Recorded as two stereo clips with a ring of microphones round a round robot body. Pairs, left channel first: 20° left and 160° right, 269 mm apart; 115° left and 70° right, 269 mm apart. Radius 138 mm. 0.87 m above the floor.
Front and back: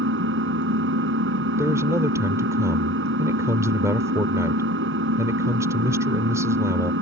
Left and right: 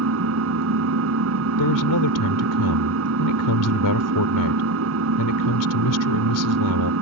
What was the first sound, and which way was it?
An engine running, 110° right.